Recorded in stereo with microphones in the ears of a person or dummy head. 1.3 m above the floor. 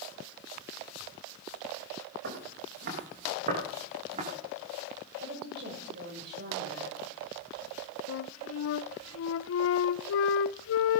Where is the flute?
70° left (ahead or behind), 0.6 m.